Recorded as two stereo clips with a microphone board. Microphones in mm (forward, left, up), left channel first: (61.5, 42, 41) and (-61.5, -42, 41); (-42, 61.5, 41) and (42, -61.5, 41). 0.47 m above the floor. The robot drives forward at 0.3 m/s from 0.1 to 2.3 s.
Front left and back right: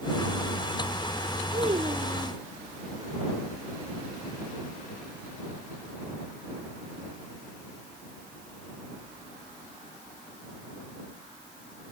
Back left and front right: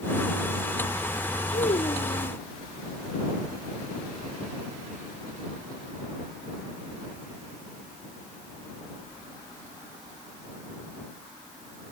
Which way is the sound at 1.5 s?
160° left.